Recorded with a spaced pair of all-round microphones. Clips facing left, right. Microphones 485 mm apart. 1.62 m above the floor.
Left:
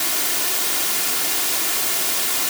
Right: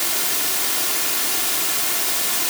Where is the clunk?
I don't hear a clunk.